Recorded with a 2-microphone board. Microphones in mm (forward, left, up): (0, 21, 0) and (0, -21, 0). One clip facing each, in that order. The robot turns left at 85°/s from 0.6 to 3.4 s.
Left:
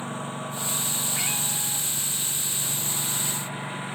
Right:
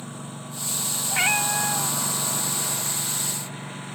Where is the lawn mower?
35° left; by 4.0 s 160° left.